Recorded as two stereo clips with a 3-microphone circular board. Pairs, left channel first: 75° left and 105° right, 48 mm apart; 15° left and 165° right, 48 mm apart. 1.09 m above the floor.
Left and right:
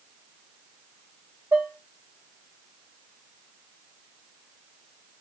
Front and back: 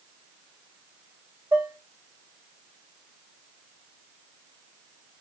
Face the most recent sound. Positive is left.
turn(degrees=-130)